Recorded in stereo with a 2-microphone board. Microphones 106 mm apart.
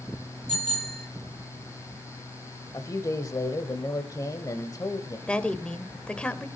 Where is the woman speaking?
10° left (ahead or behind), 1.1 m.